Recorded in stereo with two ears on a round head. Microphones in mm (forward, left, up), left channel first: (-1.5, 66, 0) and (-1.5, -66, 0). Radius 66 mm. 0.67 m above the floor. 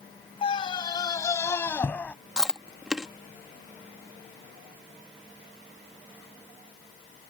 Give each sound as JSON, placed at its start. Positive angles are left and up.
{"t": 0.4, "sound": "a scream", "side_deg": 35}
{"t": 2.4, "sound": "chewing", "side_deg": -5}